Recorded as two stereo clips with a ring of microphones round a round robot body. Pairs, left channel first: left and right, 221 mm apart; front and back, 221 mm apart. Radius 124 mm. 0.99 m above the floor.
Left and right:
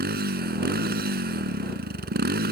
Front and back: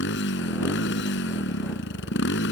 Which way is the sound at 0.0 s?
45° right.